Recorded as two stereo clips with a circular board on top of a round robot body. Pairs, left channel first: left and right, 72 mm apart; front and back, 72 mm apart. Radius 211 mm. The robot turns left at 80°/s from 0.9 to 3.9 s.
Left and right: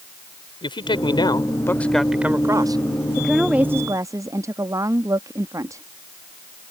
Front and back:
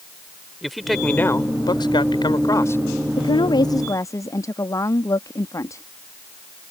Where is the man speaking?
90° left; by 2.8 s 65° right.